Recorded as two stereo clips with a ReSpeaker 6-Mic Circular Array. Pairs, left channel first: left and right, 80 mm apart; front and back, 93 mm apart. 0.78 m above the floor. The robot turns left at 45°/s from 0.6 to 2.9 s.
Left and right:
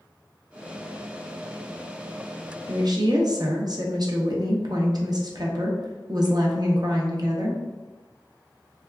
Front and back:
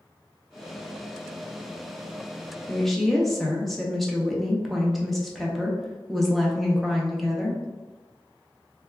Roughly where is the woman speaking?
Right.